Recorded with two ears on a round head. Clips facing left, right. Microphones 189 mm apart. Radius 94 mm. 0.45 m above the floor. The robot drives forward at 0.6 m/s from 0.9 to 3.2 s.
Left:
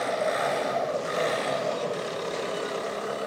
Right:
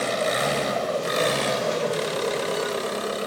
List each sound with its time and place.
0.0 s an engine running: 45° right (ahead or behind), 1.2 m; by 3.3 s 50° right (ahead or behind), 1.1 m